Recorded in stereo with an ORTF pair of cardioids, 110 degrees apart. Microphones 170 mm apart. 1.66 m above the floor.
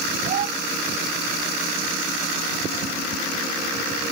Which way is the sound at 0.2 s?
55° right.